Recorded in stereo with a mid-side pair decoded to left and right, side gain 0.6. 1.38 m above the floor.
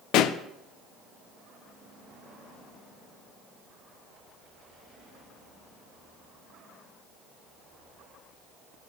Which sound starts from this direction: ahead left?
A pop, at 0.1 s.